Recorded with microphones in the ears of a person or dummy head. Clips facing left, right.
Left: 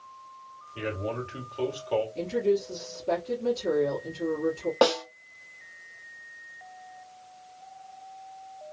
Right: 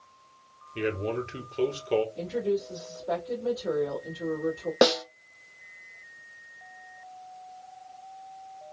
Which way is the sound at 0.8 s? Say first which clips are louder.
Right 3 dB; 30° right (ahead or behind).